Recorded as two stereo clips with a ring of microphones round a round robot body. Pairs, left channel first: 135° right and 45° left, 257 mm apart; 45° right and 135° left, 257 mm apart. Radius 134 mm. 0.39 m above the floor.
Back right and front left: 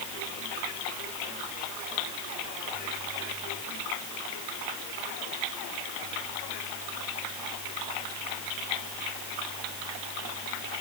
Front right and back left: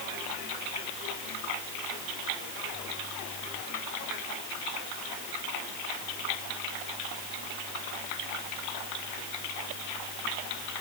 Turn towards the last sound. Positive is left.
No sound to turn to.